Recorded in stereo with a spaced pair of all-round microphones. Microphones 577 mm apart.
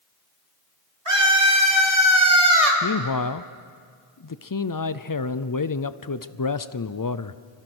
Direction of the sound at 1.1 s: 60° right (ahead or behind).